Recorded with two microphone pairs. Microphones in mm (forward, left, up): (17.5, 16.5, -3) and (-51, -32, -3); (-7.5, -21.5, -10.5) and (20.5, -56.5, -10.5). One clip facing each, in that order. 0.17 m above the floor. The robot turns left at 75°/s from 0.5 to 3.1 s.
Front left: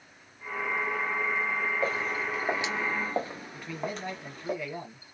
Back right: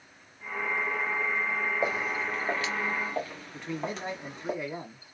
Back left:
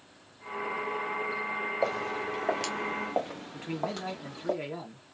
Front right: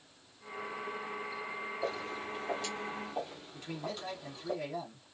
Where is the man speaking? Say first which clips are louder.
Back right 2 dB, back left 6 dB; 165° left, 1.7 m.